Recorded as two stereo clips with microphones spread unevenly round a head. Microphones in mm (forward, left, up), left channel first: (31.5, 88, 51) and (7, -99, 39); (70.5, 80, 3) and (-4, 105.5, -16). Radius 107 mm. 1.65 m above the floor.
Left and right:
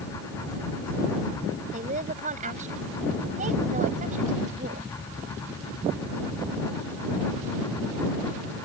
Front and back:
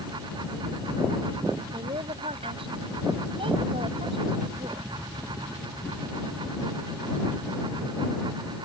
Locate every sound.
1.7 s a woman speaking: 155° right